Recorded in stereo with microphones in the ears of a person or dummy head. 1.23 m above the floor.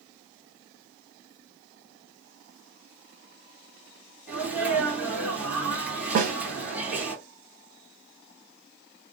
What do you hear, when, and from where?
4.3 s a sneeze: 5° right (ahead or behind), 1.8 m
6.2 s a snare drum: 60° right (ahead or behind), 0.8 m